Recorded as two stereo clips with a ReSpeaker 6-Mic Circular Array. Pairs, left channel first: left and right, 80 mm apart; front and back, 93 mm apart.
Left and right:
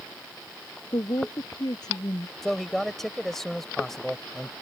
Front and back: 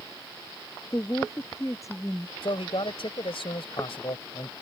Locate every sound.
0.9 s a woman speaking: 55° left
2.4 s a man speaking: 5° left